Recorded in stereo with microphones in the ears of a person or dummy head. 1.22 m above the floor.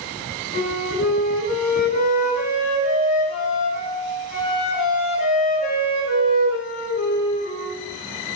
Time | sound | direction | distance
0.5 | a flute | 40° left (ahead or behind) | 6 m